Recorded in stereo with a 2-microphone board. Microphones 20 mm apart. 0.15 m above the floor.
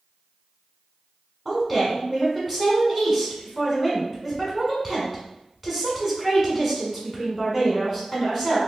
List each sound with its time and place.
1.4 s a woman speaking: 5° right (ahead or behind), 1.5 m